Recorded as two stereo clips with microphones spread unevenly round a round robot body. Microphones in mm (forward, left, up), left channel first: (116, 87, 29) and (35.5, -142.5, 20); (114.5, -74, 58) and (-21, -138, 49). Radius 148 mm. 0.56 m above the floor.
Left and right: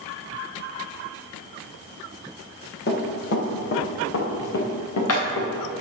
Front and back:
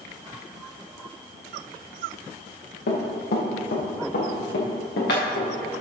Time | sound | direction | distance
2.9 | running footsteps | 30° left | 3.5 m